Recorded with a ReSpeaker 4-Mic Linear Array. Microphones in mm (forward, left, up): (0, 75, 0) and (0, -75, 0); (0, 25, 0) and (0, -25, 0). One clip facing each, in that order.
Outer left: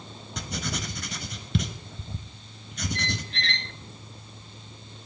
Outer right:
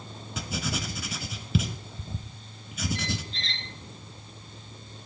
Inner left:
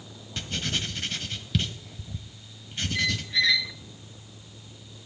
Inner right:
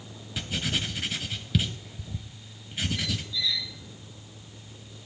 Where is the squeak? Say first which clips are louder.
Even, inner left 6 dB; 70° left (ahead or behind), 0.8 m.